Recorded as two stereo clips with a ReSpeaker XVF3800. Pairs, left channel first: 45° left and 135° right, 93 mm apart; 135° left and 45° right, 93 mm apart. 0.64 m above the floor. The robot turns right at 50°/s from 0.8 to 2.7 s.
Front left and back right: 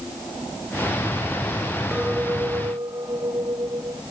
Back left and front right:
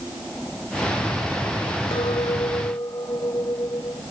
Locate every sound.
1.9 s a clink: 145° left; by 4.0 s 175° right